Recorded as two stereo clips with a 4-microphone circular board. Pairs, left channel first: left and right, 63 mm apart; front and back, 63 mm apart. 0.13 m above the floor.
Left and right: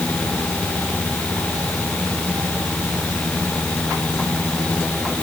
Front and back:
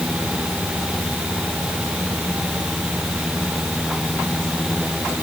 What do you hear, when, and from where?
Only background noise.